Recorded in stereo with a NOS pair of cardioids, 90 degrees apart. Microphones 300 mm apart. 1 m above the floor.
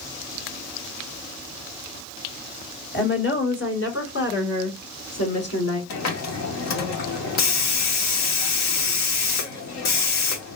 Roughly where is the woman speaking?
Ahead left.